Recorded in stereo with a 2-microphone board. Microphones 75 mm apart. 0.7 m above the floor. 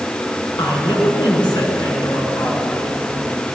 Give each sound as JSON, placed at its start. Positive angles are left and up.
{"t": 0.6, "sound": "a woman speaking", "side_deg": 85, "distance_m": 7.0}